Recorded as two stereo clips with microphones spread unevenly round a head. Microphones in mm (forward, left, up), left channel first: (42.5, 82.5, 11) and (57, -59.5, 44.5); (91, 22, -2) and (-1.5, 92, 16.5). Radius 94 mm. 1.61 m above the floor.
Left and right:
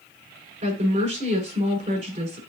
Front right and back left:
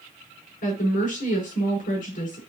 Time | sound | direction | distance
0.6 | a woman speaking | 45° right | 6 m